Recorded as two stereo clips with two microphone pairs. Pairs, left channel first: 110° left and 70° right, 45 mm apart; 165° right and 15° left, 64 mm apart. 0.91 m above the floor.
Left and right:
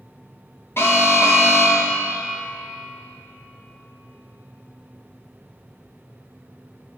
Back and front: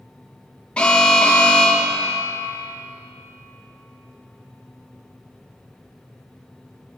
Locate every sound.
0.8 s an alarm: 125° left, 1.2 m